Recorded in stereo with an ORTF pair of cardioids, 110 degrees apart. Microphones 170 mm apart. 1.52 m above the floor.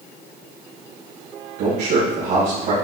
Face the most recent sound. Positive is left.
turn(degrees=-65)